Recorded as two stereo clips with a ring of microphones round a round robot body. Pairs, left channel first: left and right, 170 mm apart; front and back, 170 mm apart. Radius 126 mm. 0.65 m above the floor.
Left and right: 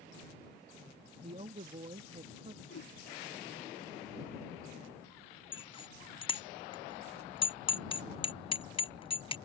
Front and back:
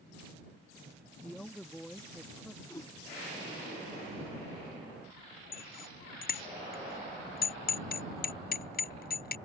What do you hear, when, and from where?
1.2 s a woman speaking: 85° right
2.6 s a whoosh: 75° left
5.5 s a bicycle bell: 30° left